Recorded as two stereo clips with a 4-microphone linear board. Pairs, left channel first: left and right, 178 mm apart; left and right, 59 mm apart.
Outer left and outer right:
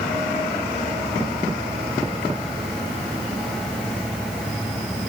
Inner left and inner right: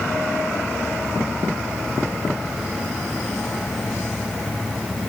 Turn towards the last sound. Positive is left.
No sound to turn to.